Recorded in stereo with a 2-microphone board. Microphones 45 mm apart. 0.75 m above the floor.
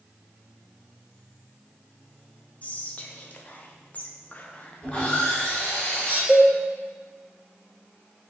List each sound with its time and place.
2.6 s whispering: 30° left (ahead or behind), 0.5 m
4.8 s sawing: 25° left (ahead or behind), 1.4 m
6.3 s a cowbell: 5° right (ahead or behind), 0.8 m